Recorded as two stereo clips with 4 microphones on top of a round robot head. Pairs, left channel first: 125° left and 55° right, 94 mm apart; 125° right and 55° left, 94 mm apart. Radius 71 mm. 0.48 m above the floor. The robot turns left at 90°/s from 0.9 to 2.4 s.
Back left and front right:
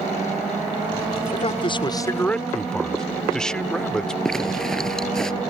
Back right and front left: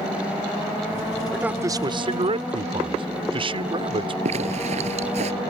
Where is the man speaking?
140° left; by 4.2 s 40° left.